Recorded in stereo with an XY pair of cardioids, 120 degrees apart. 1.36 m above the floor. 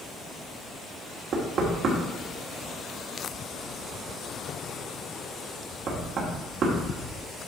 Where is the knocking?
55° right, 2.5 m.